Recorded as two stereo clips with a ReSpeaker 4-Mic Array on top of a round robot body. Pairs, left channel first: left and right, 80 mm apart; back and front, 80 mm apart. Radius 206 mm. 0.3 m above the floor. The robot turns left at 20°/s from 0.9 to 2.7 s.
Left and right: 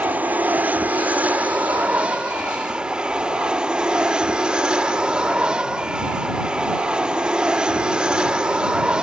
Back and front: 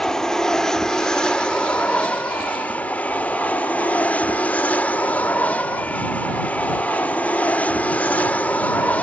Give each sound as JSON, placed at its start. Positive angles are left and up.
{"t": 0.0, "sound": "an aircraft", "azimuth_deg": -110}